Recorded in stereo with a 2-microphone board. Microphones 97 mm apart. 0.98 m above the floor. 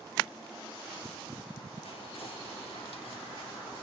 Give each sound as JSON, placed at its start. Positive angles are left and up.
{"t": 1.8, "sound": "whispering", "side_deg": 75, "distance_m": 3.0}